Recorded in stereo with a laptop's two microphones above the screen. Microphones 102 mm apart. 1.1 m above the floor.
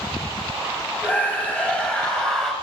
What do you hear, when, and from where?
1.0 s a scream: 15° left (ahead or behind), 7 m; by 2.5 s 5° left (ahead or behind), 5.5 m